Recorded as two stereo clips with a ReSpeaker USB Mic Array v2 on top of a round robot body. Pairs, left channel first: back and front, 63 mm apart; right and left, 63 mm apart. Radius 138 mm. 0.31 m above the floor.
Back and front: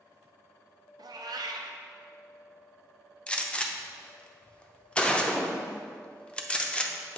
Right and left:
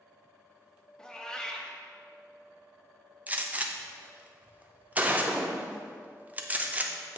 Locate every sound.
1.0 s a cat meowing: 10° right, 0.6 m
3.3 s a gunshot: 125° left, 0.9 m